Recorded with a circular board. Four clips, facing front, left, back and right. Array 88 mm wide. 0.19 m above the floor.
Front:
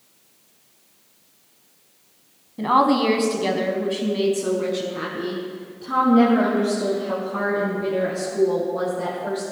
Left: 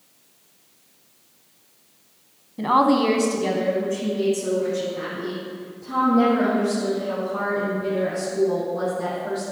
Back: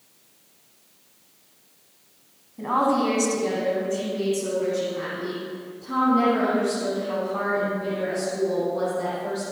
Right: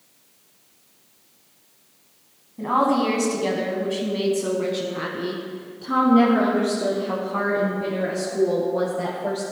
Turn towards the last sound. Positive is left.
turn(degrees=-75)